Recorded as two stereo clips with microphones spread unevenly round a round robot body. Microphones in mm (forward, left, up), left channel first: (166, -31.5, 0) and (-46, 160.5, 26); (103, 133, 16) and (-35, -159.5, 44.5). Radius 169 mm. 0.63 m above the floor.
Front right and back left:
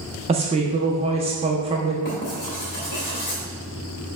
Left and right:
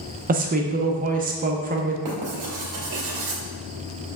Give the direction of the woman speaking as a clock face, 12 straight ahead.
5 o'clock.